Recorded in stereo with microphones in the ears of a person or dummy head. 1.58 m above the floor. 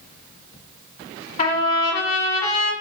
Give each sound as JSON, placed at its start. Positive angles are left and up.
{"t": 1.4, "sound": "a trumpet", "side_deg": 40, "distance_m": 1.2}